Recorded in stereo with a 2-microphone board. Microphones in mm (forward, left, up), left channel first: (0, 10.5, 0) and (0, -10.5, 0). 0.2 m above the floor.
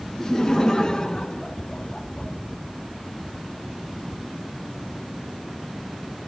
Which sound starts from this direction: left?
Laughter, at 0.2 s.